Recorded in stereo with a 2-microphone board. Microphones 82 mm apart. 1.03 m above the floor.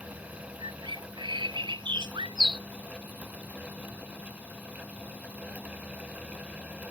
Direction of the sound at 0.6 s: 90° right.